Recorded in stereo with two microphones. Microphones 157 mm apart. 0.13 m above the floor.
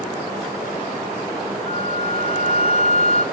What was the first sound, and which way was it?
A flute, 45° left (ahead or behind).